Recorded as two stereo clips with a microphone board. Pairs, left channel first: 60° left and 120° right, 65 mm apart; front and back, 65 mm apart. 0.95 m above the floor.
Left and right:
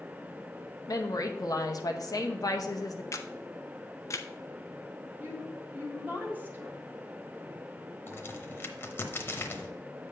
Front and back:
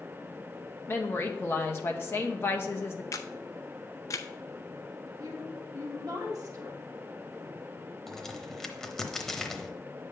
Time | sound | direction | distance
0.9 | a woman speaking | 45° left | 0.8 m
3.1 | a camera shutter | 25° left | 0.5 m
5.2 | a woman speaking | 175° left | 1.6 m
8.1 | a crack | 80° left | 0.8 m